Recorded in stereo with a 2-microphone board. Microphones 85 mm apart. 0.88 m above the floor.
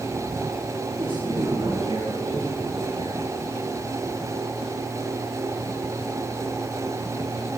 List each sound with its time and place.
1.0 s a man speaking: 75° right (ahead or behind), 7.5 m; by 3.3 s 80° right, 8 m